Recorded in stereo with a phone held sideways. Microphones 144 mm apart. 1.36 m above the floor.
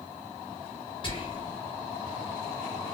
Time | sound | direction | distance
1.0 | whispering | 35° left (ahead or behind) | 1.3 m